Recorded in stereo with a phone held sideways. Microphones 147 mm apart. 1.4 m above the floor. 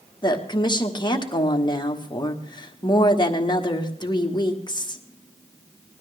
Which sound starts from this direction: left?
A woman speaking, at 0.2 s.